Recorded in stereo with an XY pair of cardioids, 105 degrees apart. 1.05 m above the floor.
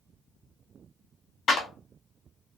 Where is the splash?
I don't hear a splash.